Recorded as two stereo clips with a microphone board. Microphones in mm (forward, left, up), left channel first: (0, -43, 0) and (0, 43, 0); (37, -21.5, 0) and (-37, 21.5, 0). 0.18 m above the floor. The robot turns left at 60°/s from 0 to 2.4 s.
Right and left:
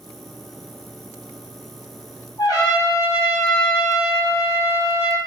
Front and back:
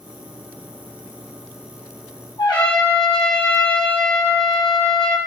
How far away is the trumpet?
About 2 m.